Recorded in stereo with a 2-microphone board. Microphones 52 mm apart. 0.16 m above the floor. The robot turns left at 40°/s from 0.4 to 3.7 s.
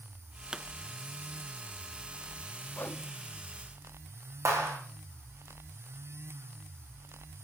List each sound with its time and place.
0.5 s a pop: 15° right (ahead or behind), 0.6 m; by 0.7 s 10° right (ahead or behind), 0.6 m
2.8 s a whoosh: 30° left (ahead or behind), 0.7 m; by 3.0 s 25° left (ahead or behind), 0.7 m
4.5 s a clap: 75° right (ahead or behind), 4.5 m